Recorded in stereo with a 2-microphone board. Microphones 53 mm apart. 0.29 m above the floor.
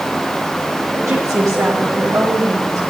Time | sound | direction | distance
0.9 | a woman speaking | 65° right (ahead or behind) | 6.5 m